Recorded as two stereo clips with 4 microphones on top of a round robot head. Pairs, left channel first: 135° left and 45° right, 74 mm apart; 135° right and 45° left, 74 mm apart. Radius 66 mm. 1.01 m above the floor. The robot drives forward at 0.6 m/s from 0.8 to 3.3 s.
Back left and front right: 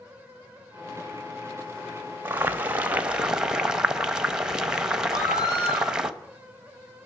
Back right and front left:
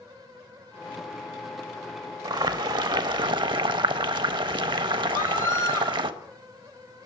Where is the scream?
170° left, 7.5 m.